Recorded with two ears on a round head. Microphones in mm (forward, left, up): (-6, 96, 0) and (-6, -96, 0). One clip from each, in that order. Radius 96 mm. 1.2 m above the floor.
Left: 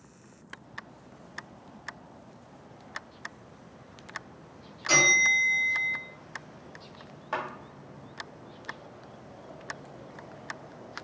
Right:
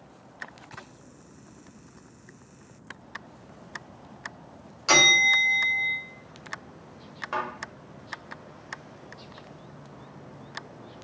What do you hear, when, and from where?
4.9 s a bell: 50° right (ahead or behind), 1.0 m
7.3 s a thud: centre (ahead or behind), 1.0 m